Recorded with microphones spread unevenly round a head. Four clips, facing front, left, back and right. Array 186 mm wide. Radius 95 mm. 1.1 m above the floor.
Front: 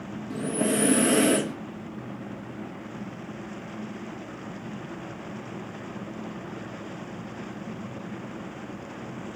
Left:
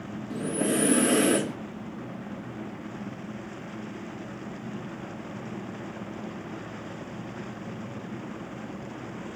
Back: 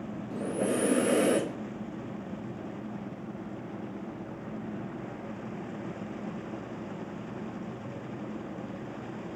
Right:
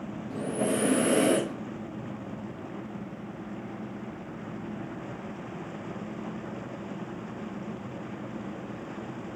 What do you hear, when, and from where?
0.3 s breathing: 15° left, 1.7 m